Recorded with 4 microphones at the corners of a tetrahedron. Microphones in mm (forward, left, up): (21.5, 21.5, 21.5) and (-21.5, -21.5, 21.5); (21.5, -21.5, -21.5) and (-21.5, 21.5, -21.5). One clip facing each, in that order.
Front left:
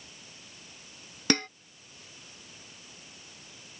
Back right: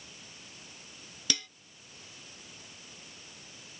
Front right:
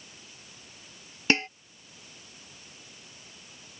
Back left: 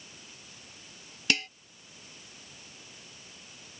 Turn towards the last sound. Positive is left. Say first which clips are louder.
# front left 10 dB, front right 5 dB
turn(degrees=10)